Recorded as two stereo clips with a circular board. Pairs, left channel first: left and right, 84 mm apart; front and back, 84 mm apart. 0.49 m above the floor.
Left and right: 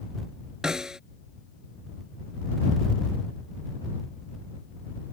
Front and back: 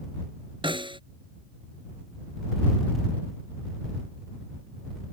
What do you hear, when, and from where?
0.6 s a snare drum: 175° right